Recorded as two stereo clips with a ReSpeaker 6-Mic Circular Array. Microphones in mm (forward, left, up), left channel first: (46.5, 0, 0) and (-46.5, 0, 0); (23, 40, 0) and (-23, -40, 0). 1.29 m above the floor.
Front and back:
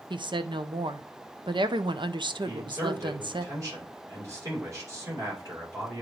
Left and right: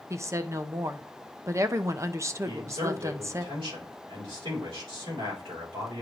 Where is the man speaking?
130° right, 4 m.